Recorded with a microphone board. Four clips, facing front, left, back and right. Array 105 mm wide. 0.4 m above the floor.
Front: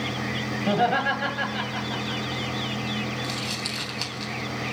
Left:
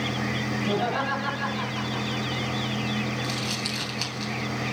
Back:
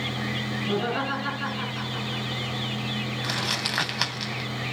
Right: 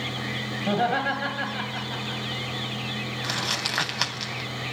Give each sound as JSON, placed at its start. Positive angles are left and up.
{"t": 0.7, "sound": "laughter", "azimuth_deg": -30, "distance_m": 9.0}
{"t": 3.2, "sound": "crumpling", "azimuth_deg": -135, "distance_m": 3.0}